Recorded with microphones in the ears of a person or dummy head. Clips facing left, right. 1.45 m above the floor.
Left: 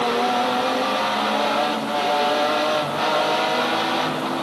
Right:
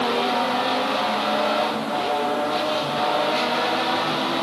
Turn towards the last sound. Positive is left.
No sound to turn to.